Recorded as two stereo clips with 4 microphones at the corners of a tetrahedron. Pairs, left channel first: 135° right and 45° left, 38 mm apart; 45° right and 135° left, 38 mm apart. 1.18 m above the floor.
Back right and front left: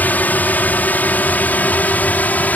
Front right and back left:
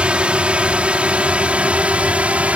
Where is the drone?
170° right; by 2.6 s 175° right.